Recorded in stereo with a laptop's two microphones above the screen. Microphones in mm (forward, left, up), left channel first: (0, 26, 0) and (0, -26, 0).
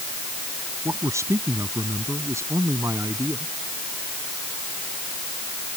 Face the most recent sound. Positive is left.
turn(degrees=-60)  # may be behind; listen again after turning